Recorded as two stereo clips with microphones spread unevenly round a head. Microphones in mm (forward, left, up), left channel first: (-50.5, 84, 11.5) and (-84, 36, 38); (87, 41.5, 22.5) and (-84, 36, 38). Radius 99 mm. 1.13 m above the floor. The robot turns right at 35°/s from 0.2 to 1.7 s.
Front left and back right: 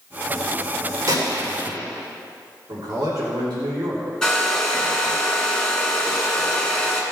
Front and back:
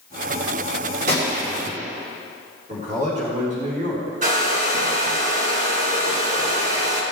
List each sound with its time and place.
1.1 s a gunshot: 135° right, 3 m; by 1.8 s 115° right, 3 m
2.7 s a man speaking: 125° right, 3 m
4.2 s a hair dryer: 145° left, 2.5 m